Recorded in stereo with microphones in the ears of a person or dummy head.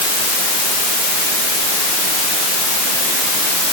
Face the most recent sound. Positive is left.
No sound to turn to.